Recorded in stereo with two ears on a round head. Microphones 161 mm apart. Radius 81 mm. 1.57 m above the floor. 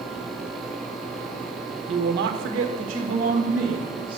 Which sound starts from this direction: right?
A woman speaking, at 1.9 s.